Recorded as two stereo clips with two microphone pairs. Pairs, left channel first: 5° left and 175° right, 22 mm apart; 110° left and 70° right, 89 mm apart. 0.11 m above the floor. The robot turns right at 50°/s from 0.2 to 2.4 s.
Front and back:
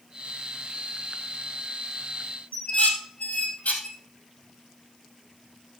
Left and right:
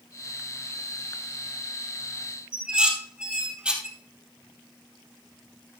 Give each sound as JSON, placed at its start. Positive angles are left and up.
{"t": 2.5, "sound": "dishes clattering", "azimuth_deg": 5, "distance_m": 2.0}